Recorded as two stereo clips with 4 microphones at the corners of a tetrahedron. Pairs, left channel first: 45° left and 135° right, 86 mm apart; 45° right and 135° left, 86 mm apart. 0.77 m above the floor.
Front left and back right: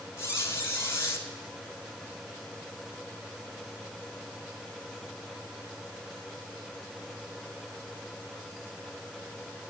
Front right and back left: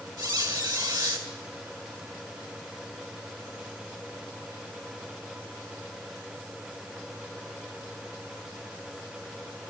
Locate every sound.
0.2 s a squeak: 105° left, 2 m